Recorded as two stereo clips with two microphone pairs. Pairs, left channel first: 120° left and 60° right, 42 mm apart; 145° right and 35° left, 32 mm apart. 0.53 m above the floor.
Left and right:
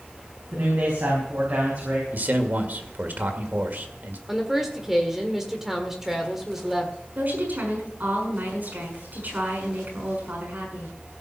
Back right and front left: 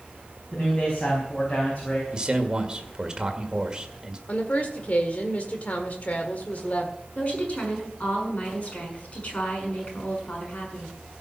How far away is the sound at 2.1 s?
About 1.8 m.